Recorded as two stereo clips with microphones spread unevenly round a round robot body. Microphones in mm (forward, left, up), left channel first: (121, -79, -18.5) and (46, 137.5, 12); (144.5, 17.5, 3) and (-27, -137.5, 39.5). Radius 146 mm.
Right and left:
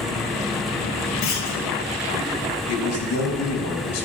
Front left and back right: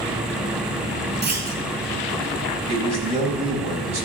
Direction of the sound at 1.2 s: 85° right.